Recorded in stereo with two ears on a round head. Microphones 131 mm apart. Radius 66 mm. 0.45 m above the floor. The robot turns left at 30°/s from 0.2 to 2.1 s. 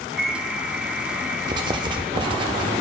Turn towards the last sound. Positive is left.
turn(degrees=-30)  # may be behind; listen again after turning